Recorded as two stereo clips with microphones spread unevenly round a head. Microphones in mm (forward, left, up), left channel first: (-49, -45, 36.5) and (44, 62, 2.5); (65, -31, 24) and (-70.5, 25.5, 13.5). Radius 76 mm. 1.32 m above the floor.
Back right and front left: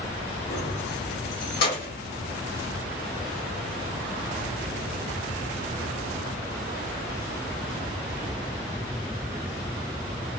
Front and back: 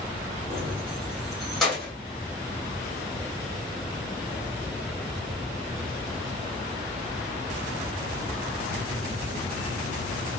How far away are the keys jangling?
About 1.7 m.